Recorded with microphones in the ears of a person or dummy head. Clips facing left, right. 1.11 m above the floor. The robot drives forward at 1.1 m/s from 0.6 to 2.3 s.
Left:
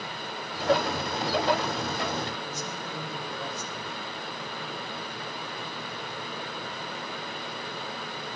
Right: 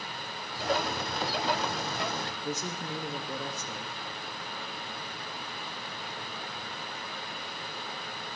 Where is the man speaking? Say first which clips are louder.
Right 1 dB; 65° right (ahead or behind), 1.6 m.